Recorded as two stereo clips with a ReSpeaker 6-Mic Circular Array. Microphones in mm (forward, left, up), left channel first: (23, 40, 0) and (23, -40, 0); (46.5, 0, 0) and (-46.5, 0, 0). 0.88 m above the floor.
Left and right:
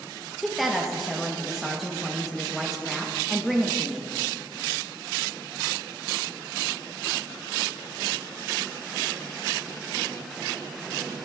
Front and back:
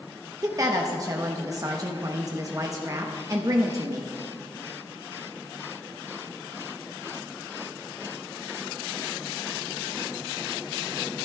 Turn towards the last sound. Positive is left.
turn(degrees=180)